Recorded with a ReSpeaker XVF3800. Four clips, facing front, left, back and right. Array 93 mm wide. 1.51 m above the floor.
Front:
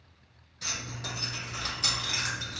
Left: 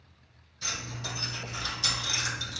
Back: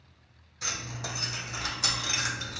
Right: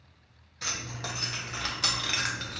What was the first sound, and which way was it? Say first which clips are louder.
Keys jangling: right 1 dB, back 2 dB; 105° right.